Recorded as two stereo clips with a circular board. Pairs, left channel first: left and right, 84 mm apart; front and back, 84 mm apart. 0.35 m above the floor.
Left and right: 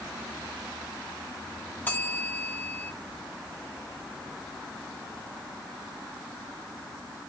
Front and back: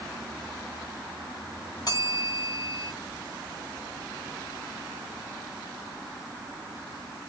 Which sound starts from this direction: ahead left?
A bell, at 1.9 s.